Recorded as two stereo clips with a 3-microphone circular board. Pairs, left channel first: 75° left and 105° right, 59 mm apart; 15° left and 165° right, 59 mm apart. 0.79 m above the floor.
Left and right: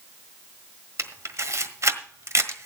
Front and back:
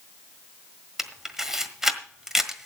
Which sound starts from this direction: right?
A camera shutter, at 1.0 s.